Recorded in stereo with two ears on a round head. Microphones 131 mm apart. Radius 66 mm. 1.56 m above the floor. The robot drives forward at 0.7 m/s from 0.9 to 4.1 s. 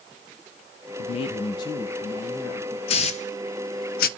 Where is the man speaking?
45° left (ahead or behind), 0.7 m; by 2.8 s 15° left (ahead or behind), 1.7 m.